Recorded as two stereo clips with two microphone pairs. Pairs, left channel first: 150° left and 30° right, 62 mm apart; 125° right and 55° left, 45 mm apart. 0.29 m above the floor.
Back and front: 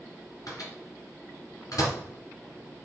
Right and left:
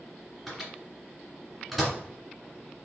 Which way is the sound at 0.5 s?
140° left.